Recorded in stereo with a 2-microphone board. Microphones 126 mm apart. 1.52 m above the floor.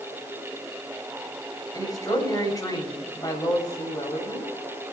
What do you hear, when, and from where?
1.7 s a woman speaking: 30° left (ahead or behind), 8.5 m